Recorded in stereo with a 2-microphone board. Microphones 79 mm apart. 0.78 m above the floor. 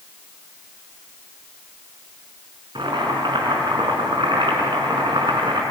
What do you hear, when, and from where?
2.8 s boiling: 75° right (ahead or behind), 4.5 m